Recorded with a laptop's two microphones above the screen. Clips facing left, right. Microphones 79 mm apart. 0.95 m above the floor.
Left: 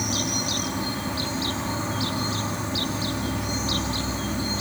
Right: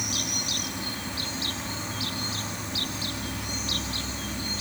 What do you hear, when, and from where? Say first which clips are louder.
0.0 s an insect: left 6 dB; 35° left (ahead or behind)